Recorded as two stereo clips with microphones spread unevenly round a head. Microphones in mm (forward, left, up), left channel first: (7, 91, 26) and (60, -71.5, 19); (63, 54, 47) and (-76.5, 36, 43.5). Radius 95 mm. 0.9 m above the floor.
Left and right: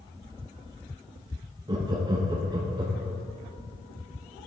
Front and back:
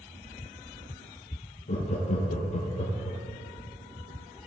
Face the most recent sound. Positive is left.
turn(degrees=-15)